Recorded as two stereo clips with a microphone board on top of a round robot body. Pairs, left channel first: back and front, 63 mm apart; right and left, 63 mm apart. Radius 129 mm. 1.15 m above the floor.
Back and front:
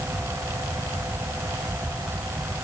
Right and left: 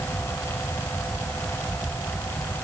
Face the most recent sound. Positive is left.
No sound to turn to.